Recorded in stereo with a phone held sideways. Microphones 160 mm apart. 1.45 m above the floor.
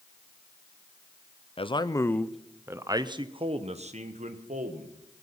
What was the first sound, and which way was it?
A man speaking, 35° left (ahead or behind).